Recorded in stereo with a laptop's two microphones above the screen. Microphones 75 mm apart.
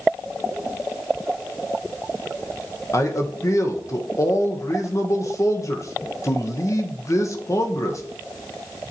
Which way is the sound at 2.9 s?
45° left (ahead or behind).